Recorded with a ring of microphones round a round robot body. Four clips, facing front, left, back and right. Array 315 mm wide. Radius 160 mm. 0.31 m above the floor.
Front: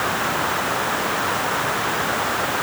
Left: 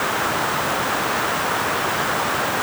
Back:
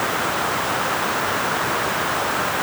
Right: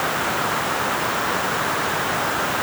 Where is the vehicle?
I don't hear a vehicle.